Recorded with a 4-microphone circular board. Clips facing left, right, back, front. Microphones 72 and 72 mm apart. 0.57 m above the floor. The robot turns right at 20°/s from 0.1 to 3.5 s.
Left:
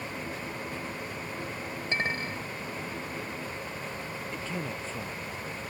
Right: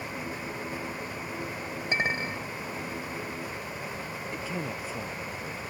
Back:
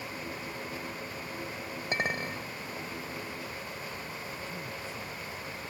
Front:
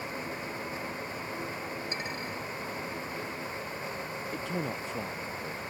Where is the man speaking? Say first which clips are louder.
Right 2 dB, front 6 dB; 10° right.